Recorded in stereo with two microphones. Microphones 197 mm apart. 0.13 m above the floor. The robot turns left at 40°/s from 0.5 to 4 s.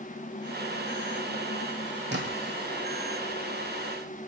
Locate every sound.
2.1 s a splash: 60° right (ahead or behind), 2.0 m; by 2.5 s 75° right (ahead or behind), 2.0 m